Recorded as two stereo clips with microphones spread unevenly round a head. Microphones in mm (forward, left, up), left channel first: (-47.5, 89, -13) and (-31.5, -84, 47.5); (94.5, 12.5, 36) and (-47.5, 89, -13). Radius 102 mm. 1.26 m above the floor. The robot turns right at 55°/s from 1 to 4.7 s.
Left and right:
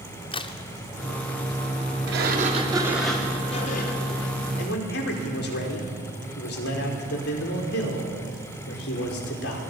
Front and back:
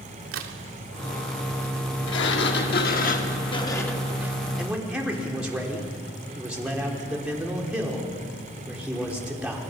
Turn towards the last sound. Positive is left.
turn(degrees=70)